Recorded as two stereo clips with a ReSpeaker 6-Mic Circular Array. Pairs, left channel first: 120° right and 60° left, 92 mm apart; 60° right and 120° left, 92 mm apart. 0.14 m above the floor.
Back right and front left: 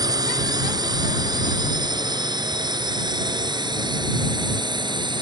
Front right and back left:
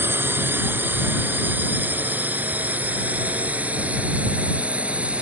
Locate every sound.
0.0 s a drone: 65° left; by 5.2 s 45° left